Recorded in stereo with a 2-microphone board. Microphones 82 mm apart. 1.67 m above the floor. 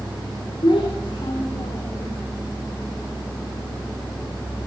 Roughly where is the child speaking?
Left.